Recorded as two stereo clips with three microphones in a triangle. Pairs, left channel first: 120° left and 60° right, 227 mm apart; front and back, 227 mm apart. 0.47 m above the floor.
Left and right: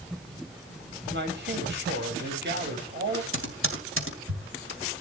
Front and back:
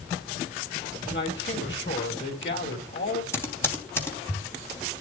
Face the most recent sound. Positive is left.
turn(degrees=-80)